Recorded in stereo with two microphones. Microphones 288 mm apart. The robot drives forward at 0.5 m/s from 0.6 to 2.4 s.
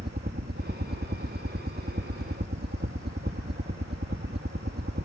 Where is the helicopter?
35° right (ahead or behind).